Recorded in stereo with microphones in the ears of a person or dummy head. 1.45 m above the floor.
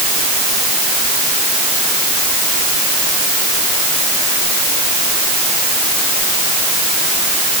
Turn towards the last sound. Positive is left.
No sound to turn to.